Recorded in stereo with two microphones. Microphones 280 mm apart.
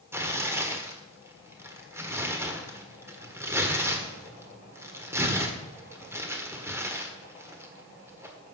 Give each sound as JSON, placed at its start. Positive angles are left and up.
{"t": 0.1, "sound": "tearing paper", "side_deg": -10, "distance_m": 1.5}